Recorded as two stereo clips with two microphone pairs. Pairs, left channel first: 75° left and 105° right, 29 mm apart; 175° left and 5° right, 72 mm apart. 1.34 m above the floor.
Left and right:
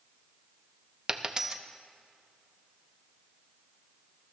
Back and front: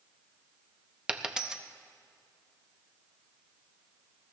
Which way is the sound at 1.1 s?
70° right.